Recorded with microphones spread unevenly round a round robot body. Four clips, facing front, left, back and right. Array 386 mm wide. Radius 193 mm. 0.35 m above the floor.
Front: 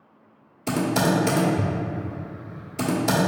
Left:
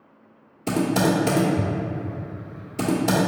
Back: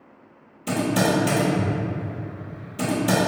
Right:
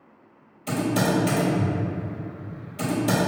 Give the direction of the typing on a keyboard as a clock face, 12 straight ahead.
9 o'clock.